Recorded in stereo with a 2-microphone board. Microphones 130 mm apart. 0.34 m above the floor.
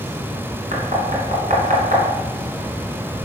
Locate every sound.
0.7 s knocking: 75° right (ahead or behind), 2.5 m